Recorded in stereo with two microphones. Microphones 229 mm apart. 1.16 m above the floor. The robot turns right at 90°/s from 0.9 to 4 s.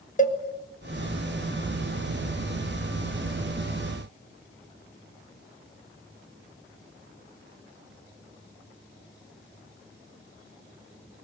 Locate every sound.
0.2 s a cowbell: 35° left (ahead or behind), 1.5 m